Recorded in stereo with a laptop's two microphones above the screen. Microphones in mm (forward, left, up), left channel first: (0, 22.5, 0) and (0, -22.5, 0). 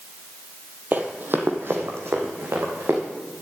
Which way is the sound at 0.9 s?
40° right (ahead or behind).